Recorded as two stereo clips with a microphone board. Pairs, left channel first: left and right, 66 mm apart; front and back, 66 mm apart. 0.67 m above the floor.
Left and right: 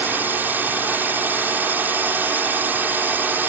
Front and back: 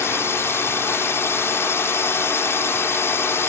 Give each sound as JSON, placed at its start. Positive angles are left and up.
{"t": 0.0, "sound": "a drone", "azimuth_deg": -40}